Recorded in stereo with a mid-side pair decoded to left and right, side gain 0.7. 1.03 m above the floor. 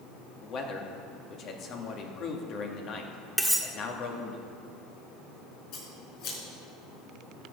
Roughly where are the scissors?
Ahead left.